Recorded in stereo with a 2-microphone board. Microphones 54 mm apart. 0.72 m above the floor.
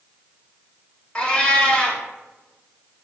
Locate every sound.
1.1 s a cat meowing: 20° left (ahead or behind), 0.5 m